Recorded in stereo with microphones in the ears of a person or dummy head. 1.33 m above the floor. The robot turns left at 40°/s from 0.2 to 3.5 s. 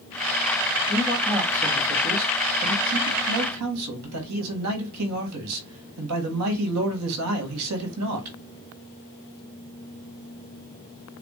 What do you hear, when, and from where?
0.9 s a man speaking: 10° left, 1.8 m; by 8.4 s 95° right, 1.8 m